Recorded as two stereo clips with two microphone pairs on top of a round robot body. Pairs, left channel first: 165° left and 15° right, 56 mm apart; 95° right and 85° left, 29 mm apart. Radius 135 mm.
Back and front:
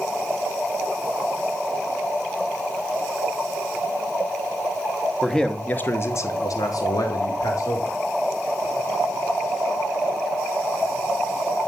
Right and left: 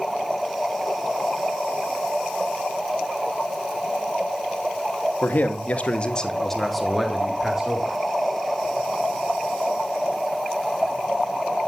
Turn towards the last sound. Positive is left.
turn(degrees=150)